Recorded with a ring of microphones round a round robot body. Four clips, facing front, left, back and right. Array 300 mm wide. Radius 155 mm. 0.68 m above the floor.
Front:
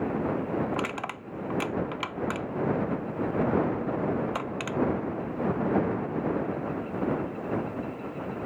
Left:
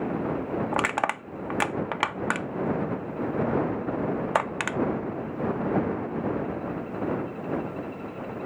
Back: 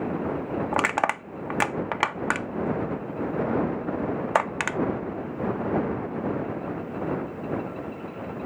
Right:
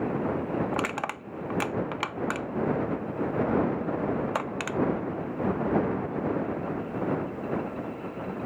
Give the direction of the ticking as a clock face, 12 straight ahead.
No ticking in this recording.